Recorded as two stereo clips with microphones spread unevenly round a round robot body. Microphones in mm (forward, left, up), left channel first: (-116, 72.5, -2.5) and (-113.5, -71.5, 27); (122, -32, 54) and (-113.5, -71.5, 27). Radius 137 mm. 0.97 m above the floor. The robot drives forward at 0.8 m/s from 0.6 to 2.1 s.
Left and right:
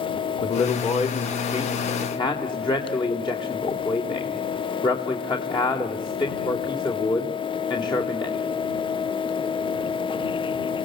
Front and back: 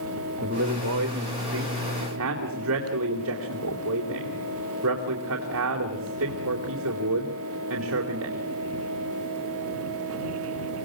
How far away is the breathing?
No breathing in this recording.